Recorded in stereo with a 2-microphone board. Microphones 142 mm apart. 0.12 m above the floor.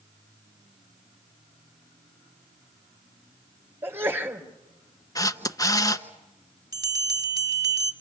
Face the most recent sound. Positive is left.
turn(degrees=-25)  # may be behind; listen again after turning